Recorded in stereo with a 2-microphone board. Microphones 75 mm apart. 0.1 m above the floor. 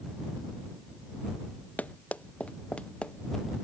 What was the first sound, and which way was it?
Running footsteps, 20° left (ahead or behind).